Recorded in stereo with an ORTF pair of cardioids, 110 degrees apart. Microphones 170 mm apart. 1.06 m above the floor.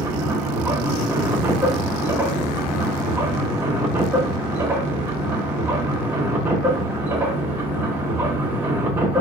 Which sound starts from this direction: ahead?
A machine running, at 0.0 s.